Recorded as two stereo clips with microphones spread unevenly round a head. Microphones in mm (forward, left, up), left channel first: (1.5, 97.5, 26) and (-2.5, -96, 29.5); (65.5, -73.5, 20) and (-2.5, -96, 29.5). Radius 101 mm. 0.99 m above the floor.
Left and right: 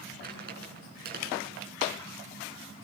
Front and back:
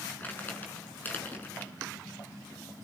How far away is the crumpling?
About 8 m.